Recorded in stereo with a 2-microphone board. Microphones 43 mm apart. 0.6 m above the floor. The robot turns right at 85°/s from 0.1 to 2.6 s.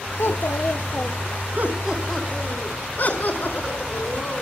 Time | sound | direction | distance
0.2 | a child speaking | 85° left | 0.8 m
1.6 | laughter | 45° right | 5 m